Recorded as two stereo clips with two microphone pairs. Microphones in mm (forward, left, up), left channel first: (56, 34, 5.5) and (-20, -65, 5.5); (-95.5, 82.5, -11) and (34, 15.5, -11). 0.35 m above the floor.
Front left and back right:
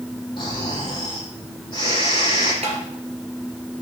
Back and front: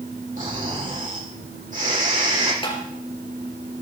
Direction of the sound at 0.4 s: Straight ahead.